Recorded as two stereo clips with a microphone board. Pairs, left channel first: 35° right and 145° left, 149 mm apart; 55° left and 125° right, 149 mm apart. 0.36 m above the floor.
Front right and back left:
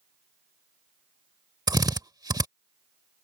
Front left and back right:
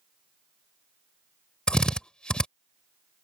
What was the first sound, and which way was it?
A drill, 135° left.